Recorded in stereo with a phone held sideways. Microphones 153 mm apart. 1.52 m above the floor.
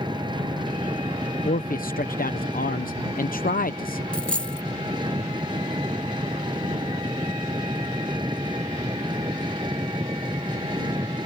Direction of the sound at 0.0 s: 30° right (ahead or behind).